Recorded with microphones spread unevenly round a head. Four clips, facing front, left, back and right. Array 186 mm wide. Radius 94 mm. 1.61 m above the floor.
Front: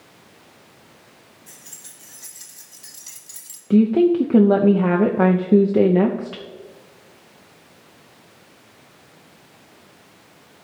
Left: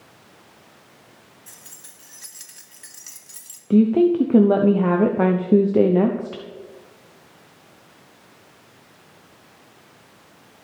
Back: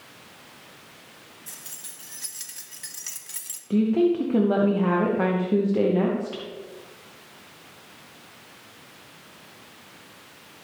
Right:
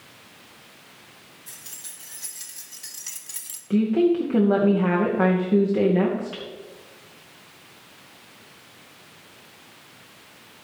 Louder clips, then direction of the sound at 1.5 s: Even, back 1 dB; 130° left.